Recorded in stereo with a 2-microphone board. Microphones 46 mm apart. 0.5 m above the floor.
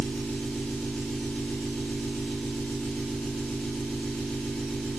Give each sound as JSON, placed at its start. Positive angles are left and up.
{"t": 0.0, "sound": "an engine running", "side_deg": 15, "distance_m": 1.0}